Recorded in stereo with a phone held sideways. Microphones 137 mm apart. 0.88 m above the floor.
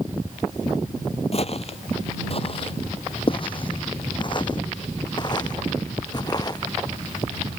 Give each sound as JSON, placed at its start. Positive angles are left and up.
{"t": 1.3, "sound": "footsteps", "side_deg": 50}